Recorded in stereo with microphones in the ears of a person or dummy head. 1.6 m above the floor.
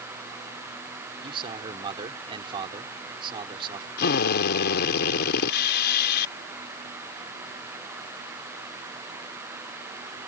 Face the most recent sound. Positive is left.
turn(degrees=65)  # may be behind; listen again after turning